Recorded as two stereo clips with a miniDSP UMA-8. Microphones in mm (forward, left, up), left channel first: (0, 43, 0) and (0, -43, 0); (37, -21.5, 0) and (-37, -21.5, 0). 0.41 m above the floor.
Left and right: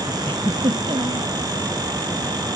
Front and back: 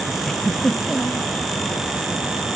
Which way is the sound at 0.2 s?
85° right.